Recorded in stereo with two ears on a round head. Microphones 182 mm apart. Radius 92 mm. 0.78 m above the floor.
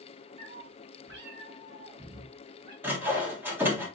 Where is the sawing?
10° right (ahead or behind), 1.5 m.